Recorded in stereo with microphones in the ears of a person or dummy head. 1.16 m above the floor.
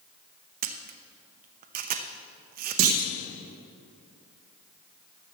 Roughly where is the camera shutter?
Right.